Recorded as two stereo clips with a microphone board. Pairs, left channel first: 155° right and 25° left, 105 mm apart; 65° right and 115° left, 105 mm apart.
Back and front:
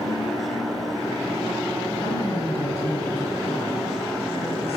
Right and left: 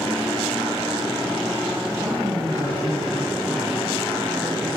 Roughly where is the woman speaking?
Behind.